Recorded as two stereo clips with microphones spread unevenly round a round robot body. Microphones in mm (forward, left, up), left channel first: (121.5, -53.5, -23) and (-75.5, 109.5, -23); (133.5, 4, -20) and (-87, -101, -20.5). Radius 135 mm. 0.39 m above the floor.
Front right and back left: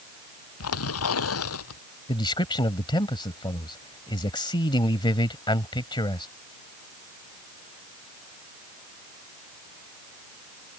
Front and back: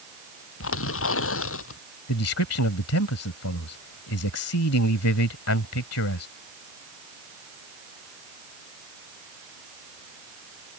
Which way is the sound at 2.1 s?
30° left.